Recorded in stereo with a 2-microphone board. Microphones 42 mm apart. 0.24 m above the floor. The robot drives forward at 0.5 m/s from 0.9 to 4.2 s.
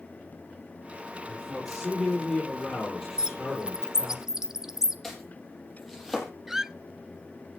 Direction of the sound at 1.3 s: 5° left (ahead or behind).